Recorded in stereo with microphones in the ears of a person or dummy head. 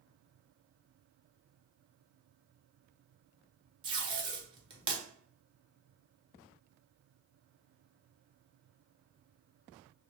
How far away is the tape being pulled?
About 1.0 m.